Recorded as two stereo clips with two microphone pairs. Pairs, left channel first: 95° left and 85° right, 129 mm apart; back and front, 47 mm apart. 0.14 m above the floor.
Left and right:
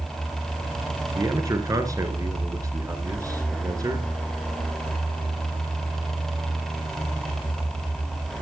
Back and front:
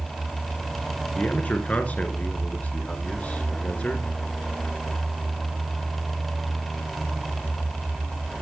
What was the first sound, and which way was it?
A man speaking, 135° right.